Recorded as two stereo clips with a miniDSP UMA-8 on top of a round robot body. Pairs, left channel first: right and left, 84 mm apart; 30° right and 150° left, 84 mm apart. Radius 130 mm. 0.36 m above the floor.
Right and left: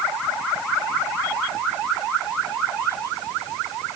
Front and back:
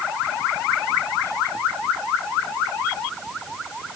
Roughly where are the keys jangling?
I don't hear keys jangling.